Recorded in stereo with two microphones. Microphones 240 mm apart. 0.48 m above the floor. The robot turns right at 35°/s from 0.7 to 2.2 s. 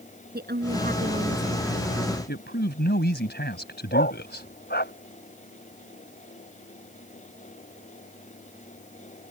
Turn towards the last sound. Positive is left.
turn(degrees=40)  # may be behind; listen again after turning